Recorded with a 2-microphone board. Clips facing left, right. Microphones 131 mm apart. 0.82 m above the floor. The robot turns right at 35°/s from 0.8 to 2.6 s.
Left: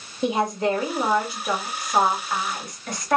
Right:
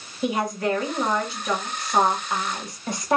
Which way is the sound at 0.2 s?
145° left.